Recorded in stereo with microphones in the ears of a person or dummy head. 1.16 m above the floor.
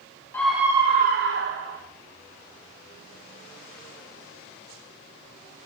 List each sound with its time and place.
0.3 s a scream: 15° left (ahead or behind), 1.0 m; by 1.8 s 75° right (ahead or behind), 1.6 m